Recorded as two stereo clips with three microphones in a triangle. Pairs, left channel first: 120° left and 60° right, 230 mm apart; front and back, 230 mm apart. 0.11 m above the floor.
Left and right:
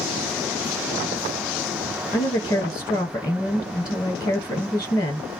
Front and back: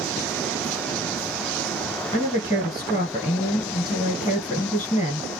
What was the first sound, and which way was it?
A woman speaking, 60° left.